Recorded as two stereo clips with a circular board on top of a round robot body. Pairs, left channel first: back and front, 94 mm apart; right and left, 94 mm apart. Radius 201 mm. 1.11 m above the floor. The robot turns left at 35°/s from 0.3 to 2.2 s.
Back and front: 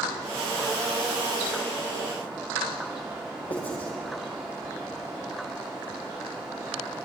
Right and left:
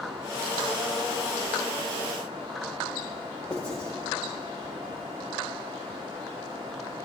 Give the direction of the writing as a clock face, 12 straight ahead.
5 o'clock.